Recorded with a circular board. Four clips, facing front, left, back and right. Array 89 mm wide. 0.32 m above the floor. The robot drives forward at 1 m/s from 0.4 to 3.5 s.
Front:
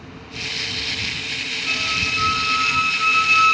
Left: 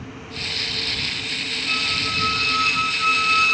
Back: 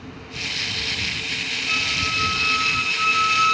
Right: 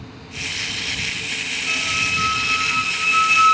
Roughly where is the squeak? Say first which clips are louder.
Right 1 dB, front 1 dB; ahead right.